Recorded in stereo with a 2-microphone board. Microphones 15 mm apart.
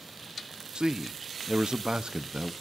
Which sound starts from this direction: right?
A man speaking, at 0.8 s.